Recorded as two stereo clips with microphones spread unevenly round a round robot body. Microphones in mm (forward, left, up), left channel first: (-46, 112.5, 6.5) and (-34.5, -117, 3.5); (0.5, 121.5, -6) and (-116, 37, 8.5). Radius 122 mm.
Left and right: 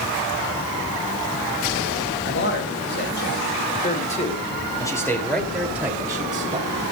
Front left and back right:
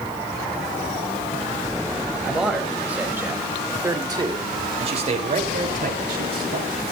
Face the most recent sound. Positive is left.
turn(degrees=-150)